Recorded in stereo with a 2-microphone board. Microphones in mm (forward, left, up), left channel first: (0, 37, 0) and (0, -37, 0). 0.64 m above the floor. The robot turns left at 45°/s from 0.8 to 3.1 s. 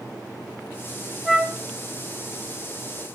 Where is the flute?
Centre (ahead or behind), 0.8 m; by 1.6 s 15° right (ahead or behind), 0.8 m.